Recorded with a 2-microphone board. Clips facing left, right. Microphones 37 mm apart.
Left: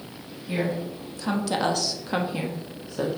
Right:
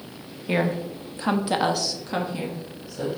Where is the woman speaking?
55° right (ahead or behind), 1.2 m; by 3.1 s 45° left (ahead or behind), 1.2 m.